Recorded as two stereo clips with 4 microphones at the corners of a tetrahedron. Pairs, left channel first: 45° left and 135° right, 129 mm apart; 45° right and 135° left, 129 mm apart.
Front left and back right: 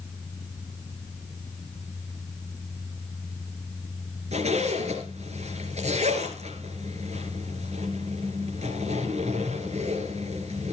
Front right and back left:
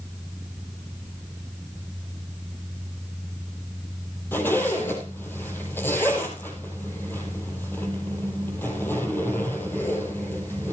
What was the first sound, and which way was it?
A zipper, 115° right.